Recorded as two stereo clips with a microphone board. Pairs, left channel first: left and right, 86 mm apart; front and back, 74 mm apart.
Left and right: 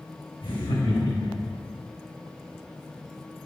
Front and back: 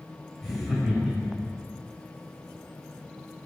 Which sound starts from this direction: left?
Laughter, at 0.4 s.